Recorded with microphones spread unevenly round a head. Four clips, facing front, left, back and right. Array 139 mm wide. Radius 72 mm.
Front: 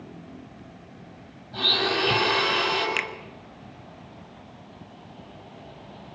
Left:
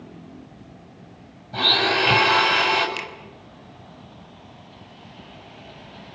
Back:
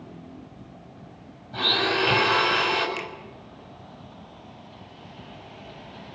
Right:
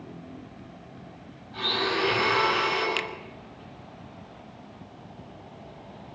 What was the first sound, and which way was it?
A blender, 90° left.